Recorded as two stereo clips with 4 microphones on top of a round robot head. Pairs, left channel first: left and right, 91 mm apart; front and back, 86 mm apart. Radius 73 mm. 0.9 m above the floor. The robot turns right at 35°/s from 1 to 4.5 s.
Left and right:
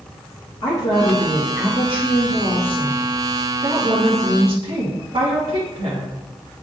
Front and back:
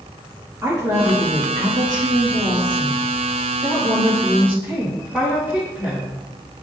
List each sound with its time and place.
0.6 s a woman speaking: 130° left, 1.7 m; by 6.2 s 110° right, 1.7 m